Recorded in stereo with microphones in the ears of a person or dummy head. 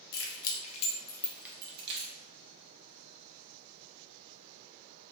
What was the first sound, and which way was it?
Keys jangling, 70° left (ahead or behind).